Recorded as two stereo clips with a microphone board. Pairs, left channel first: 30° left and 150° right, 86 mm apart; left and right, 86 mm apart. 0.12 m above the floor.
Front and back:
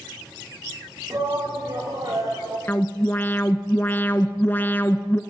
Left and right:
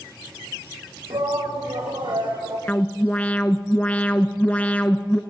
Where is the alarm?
45° left, 0.8 m.